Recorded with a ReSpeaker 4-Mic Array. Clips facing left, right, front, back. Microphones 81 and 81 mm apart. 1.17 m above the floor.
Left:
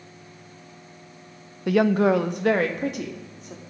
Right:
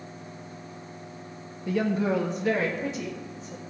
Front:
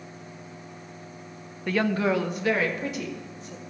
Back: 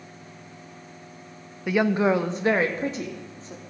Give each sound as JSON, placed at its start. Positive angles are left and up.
{"t": 1.7, "sound": "a woman speaking", "azimuth_deg": 100, "distance_m": 0.5}